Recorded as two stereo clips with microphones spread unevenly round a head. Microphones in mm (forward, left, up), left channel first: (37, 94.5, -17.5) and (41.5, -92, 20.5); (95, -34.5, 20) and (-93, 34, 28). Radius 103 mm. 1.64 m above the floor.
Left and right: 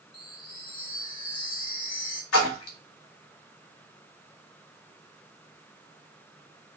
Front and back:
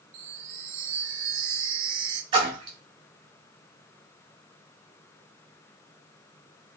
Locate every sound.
0.1 s a chime: 160° left, 0.5 m
2.3 s a splash: 95° left, 1.4 m